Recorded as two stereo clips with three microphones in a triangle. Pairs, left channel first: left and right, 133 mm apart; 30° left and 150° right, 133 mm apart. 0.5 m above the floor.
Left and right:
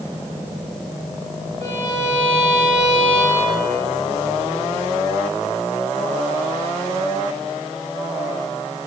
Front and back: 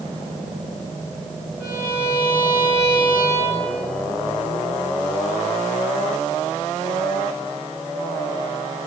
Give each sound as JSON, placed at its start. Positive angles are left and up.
{"t": 1.6, "sound": "a violin", "azimuth_deg": -55, "distance_m": 6.5}